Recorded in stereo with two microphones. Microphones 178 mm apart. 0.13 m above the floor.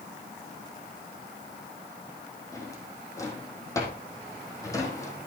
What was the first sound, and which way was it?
A drawer, 15° left (ahead or behind).